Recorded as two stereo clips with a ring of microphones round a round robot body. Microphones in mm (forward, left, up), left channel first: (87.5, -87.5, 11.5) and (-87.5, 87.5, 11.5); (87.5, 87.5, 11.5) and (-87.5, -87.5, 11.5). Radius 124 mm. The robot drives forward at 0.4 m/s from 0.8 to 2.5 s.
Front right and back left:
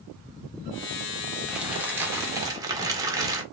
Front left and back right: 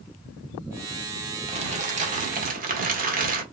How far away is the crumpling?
About 1.4 m.